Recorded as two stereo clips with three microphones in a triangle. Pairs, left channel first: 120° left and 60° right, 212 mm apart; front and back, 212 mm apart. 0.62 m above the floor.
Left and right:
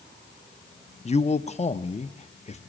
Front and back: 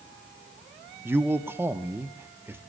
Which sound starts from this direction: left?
A man speaking, at 1.1 s.